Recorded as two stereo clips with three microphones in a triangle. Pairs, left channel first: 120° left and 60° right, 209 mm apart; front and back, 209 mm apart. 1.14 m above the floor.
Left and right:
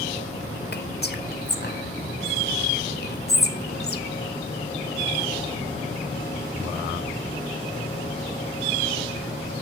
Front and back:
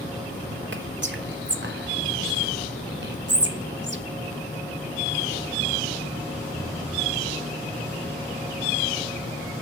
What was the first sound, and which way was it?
Whispering, 155° left.